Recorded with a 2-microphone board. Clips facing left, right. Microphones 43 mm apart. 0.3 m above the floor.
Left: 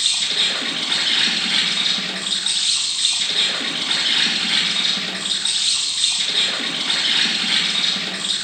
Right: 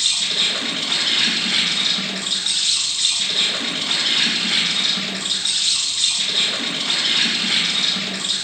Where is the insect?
5° left (ahead or behind), 0.8 m.